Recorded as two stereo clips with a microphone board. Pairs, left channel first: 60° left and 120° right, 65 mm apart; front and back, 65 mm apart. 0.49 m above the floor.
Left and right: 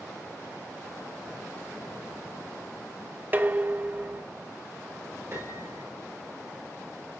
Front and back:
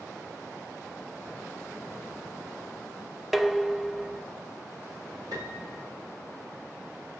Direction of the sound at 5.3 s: 165° right.